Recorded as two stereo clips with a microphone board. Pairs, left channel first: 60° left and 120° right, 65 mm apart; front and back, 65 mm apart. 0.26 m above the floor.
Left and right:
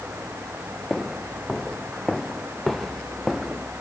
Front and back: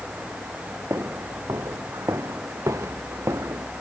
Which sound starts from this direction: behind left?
Footsteps, at 0.9 s.